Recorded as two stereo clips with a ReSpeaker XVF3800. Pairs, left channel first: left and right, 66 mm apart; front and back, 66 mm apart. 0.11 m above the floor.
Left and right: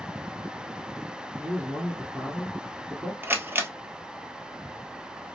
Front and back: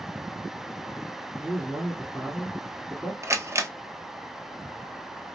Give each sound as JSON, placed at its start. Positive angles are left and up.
{"t": 1.3, "sound": "a man speaking", "azimuth_deg": -85, "distance_m": 1.8}
{"t": 3.2, "sound": "a camera shutter", "azimuth_deg": -145, "distance_m": 0.8}